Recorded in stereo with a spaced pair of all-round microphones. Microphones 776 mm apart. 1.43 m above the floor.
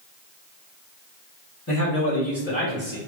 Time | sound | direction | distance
1.7 | a man speaking | 30° left (ahead or behind) | 1.1 m